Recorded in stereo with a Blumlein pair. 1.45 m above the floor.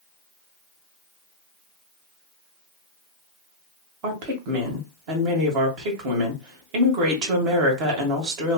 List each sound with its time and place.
4.0 s a woman speaking: 40° right, 1.6 m